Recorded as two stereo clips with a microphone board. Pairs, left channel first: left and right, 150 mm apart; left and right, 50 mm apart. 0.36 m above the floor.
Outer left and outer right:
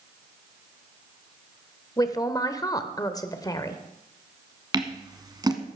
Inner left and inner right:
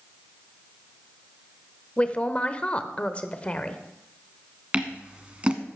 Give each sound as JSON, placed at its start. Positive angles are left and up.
{"t": 2.0, "sound": "a man speaking", "side_deg": 25, "distance_m": 0.8}
{"t": 4.7, "sound": "scissors", "side_deg": -25, "distance_m": 1.3}